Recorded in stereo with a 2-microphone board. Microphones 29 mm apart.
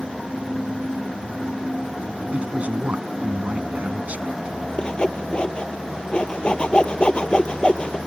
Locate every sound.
2.3 s a man speaking: 55° right (ahead or behind)
4.8 s sawing: 35° left (ahead or behind)